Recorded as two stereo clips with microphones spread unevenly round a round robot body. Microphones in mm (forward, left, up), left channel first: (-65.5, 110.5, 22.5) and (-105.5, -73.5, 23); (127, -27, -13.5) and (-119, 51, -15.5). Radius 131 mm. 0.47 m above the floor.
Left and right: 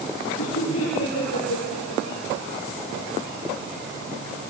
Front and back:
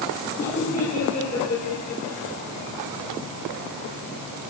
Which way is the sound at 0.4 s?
50° left.